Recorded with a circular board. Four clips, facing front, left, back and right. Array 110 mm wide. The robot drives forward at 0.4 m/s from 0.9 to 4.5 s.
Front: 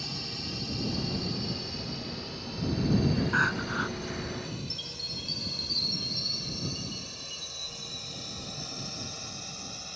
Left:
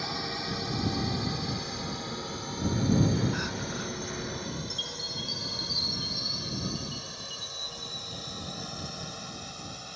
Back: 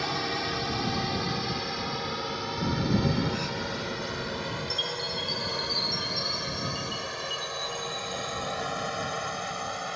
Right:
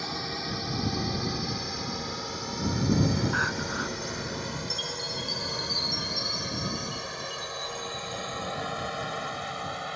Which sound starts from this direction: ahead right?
Crying, at 3.3 s.